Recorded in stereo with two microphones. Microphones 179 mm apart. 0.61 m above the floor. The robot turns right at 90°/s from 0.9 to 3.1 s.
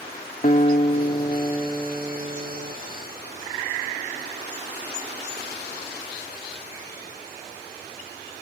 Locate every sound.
0.4 s a guitar: 90° left; by 2.8 s 100° right